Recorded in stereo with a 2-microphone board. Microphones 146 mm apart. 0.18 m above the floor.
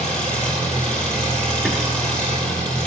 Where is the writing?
Centre (ahead or behind), 0.9 m.